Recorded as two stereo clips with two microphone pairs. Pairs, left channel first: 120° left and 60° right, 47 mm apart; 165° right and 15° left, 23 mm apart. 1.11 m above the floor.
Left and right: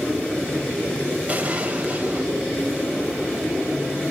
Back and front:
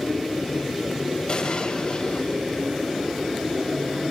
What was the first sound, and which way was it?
An explosion, 120° right.